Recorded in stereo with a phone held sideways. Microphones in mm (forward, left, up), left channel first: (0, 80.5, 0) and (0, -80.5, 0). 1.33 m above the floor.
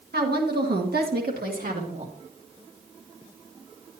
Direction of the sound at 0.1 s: 75° right (ahead or behind).